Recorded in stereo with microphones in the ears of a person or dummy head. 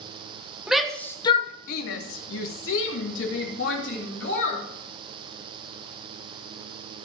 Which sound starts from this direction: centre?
A shout, at 0.7 s.